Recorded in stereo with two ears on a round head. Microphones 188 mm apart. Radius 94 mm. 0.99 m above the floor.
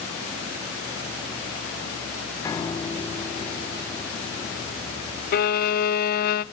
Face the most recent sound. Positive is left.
turn(degrees=45)  # may be behind; listen again after turning